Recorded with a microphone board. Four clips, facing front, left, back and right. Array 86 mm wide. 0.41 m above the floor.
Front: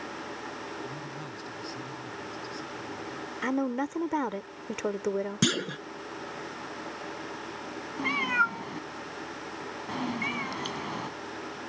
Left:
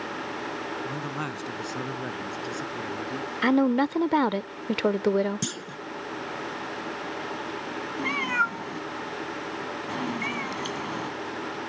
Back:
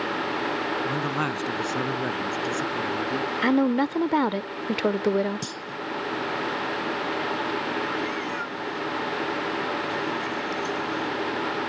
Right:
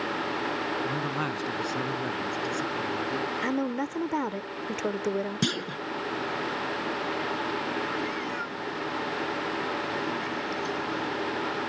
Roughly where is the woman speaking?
Behind left.